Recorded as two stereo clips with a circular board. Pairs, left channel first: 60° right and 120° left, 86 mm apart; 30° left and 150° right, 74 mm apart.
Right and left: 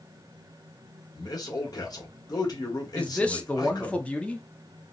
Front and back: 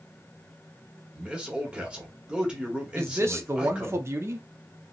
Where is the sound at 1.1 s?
75° right, 1.4 m.